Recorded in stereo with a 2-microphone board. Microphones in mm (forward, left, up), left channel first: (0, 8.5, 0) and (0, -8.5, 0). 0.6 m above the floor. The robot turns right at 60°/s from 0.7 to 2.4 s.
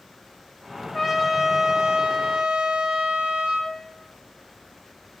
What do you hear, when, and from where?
0.9 s a trumpet: 160° left, 2.5 m; by 3.8 s 110° right, 2.5 m